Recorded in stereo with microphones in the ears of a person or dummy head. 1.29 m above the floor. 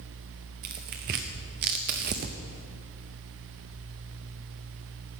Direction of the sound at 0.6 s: 30° right (ahead or behind).